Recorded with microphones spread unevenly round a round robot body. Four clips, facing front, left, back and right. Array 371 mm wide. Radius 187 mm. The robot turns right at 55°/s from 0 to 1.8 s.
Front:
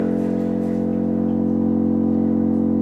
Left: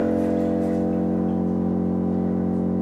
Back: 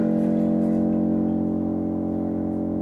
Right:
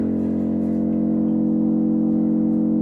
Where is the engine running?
140° left, 0.7 m; by 2.8 s 120° right, 0.7 m.